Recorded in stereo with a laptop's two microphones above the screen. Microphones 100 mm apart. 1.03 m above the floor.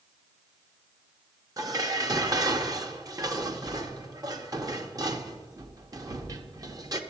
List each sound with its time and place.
1.6 s dishes clattering: 40° right (ahead or behind), 0.7 m